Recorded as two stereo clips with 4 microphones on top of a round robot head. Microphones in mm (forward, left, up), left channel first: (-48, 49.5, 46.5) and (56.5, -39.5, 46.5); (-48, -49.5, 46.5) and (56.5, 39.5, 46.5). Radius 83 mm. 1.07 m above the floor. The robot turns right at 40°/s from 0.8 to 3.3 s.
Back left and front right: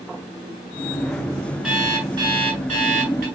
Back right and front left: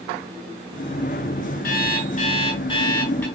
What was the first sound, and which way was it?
An alarm clock, 120° right.